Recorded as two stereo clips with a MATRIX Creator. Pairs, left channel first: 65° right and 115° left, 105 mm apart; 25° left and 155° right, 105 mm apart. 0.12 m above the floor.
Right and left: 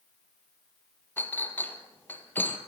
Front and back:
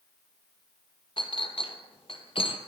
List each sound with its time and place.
1.2 s a clink: 5° left, 2.0 m